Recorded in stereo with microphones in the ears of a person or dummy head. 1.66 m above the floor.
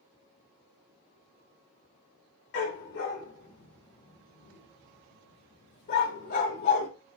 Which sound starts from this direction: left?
A dog barking, at 2.5 s.